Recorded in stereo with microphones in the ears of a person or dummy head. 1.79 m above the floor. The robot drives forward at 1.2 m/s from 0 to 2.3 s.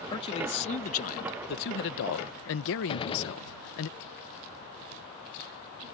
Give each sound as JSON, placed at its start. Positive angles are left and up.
{"t": 0.1, "sound": "a man speaking", "side_deg": 25}
{"t": 2.9, "sound": "a gunshot", "side_deg": 25}